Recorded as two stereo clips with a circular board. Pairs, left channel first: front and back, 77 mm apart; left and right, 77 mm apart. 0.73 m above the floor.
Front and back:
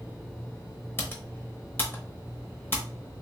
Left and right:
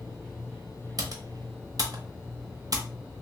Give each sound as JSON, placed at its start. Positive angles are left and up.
{"t": 1.0, "sound": "typing on a keyboard", "azimuth_deg": -60, "distance_m": 0.8}